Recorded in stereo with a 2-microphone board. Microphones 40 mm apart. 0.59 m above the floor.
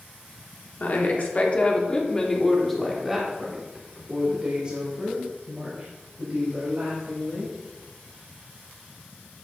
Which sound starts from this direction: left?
A woman speaking, at 0.8 s.